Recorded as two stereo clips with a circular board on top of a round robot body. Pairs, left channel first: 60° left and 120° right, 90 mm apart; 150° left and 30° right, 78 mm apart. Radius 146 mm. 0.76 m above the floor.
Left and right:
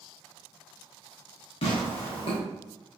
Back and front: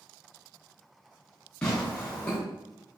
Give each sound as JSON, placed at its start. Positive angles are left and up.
{"t": 1.6, "sound": "tearing paper", "azimuth_deg": 70, "distance_m": 0.9}